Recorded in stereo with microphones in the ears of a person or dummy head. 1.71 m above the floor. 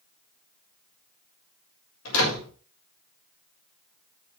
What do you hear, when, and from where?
2.0 s a door slam: 85° left, 6.5 m